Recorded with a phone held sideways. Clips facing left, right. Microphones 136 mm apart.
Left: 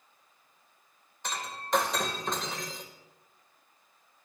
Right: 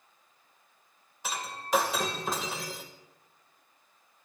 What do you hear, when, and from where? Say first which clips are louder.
1.2 s breaking glass: right 1 dB; 5° right (ahead or behind), 2 m